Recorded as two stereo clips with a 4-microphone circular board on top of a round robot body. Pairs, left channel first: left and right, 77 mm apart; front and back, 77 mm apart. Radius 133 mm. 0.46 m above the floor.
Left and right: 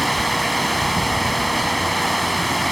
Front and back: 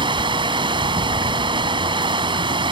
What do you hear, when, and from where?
0.0 s running water: straight behind